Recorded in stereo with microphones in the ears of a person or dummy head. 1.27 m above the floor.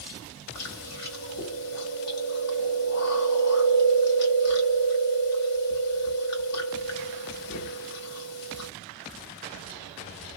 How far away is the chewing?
About 1.7 m.